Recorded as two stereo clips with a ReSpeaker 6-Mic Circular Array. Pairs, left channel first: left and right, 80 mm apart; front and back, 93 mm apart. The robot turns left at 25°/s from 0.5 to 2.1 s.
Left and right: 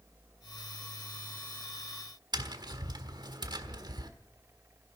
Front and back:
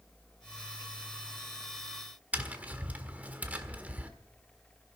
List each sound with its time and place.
2.3 s tapping: 110° right, 1.4 m